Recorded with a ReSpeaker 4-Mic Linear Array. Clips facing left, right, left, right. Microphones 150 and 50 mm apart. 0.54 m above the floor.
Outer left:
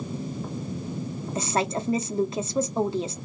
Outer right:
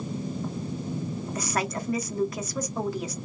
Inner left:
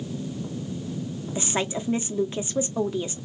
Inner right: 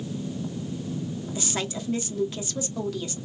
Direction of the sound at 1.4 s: 25° left (ahead or behind).